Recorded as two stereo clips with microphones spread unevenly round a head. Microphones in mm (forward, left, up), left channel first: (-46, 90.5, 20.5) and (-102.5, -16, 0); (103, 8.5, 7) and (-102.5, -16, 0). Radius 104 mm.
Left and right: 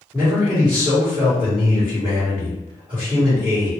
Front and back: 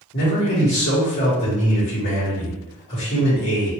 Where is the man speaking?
35° right, 1.4 m.